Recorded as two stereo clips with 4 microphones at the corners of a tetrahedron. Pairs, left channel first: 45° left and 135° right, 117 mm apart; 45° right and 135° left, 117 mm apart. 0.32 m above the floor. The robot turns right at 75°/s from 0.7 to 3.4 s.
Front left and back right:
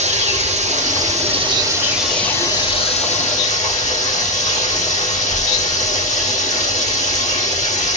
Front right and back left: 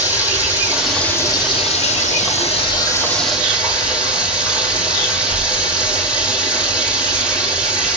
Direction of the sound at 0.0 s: 145° right.